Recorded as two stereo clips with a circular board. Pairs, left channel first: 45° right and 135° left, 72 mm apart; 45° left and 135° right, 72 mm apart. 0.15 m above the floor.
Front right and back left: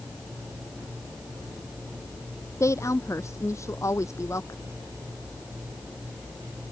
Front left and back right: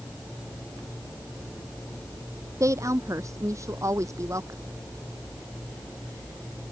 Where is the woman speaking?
90° right.